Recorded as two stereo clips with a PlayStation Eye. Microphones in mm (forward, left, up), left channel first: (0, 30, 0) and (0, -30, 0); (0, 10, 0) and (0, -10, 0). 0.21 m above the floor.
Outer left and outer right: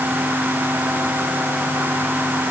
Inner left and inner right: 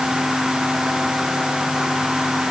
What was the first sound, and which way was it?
Only background noise.